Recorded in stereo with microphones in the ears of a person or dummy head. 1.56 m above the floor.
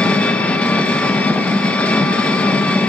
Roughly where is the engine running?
Centre.